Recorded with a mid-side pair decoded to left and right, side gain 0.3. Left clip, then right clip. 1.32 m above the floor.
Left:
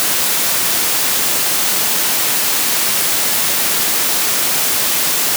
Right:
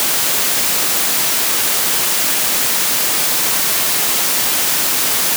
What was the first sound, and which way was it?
Only background noise.